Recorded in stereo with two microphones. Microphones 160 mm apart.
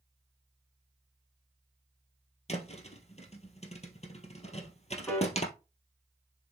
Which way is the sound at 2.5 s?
45° left (ahead or behind).